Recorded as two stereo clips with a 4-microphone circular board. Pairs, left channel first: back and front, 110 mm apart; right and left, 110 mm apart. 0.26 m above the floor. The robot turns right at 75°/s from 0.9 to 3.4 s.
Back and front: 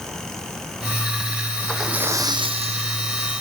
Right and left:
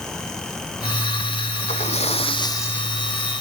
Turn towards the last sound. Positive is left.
turn(degrees=30)